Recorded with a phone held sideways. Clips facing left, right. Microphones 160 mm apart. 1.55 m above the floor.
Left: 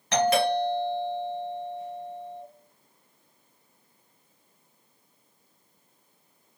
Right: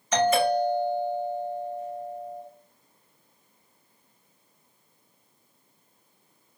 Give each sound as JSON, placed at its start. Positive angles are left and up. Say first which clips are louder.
{"t": 0.1, "sound": "a doorbell", "louder": "right 1 dB", "side_deg": 75, "distance_m": 2.5}